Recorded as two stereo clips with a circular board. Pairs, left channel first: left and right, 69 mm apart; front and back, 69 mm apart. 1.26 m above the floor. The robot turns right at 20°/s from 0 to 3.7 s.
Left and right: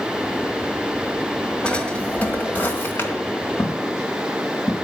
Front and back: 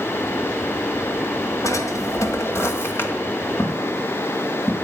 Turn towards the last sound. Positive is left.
turn(degrees=60)